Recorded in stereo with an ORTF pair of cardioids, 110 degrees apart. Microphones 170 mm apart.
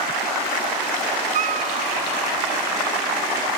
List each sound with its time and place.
1.3 s a cat meowing: 45° right